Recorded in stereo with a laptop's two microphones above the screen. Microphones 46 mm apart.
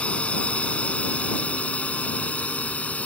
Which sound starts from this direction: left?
A drone, at 0.0 s.